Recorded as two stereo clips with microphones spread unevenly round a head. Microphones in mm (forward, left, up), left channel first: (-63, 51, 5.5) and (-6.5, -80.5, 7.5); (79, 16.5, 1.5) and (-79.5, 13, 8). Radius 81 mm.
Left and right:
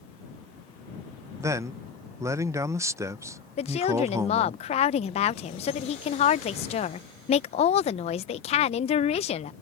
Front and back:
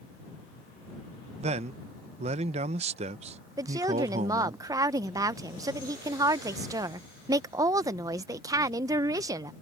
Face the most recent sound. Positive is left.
turn(degrees=120)